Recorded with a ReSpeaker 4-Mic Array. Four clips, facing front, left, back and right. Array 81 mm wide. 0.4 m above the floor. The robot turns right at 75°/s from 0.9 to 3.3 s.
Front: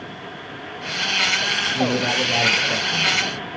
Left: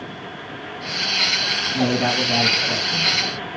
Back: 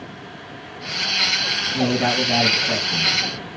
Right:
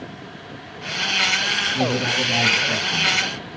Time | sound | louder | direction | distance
1.7 | a man speaking | left 4 dB, back 2 dB | 120° left | 3 m